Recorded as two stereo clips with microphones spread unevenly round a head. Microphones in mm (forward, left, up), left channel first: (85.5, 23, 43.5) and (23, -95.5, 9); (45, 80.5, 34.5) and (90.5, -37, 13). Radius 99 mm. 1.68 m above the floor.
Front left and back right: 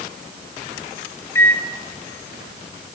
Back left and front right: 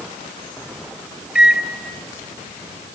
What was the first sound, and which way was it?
A microwave, 20° left.